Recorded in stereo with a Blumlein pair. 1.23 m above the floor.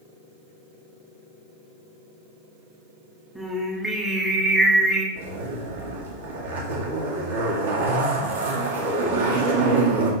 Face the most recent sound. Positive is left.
turn(degrees=-60)